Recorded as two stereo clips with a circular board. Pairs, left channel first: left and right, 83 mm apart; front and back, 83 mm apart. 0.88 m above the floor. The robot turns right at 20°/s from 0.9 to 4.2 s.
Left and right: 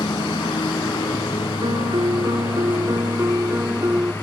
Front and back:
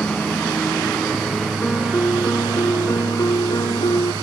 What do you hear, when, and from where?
0.0 s a lawn mower: 80° left; by 4.2 s 150° left
1.6 s a piano: 70° right; by 4.1 s 20° right